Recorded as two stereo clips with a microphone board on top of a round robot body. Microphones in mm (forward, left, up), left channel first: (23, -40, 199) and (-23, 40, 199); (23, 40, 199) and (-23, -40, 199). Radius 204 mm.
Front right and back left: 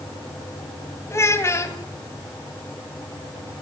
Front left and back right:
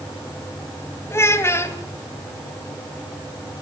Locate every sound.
1.1 s a child speaking: straight ahead, 3 m